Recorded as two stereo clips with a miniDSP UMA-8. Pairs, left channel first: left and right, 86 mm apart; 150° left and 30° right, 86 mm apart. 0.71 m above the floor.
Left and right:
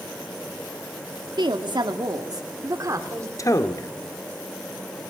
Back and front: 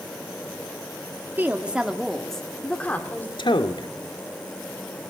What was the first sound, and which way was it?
A woman speaking, 95° right.